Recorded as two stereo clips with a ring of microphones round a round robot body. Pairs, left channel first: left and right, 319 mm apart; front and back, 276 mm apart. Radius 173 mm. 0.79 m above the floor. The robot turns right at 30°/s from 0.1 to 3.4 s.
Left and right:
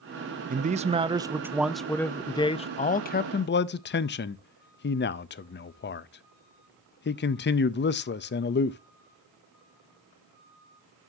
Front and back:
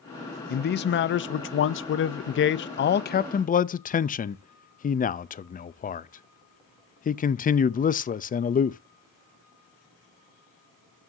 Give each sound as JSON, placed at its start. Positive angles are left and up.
{"t": 0.5, "sound": "a man speaking", "azimuth_deg": -40, "distance_m": 0.5}